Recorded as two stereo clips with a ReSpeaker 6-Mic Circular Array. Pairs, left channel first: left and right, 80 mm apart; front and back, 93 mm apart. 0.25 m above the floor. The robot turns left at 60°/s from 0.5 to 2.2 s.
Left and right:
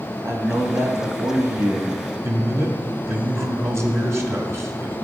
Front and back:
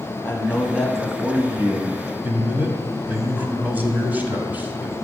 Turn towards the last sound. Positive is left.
turn(degrees=-120)